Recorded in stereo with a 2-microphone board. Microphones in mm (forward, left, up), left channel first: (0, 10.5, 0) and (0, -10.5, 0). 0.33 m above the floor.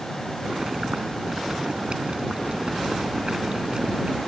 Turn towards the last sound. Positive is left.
turn(degrees=-50)  # may be behind; listen again after turning